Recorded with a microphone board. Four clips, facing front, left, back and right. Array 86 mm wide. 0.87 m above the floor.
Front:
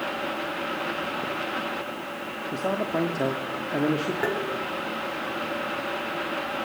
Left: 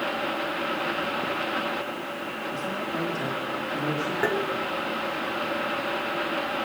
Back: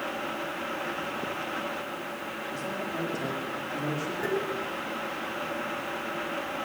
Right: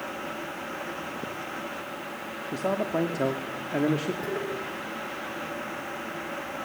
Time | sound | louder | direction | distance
2.5 | a man speaking | right 6 dB, front 9 dB | 40° right | 2.5 m
4.2 | tapping | left 6 dB, even | 55° left | 3 m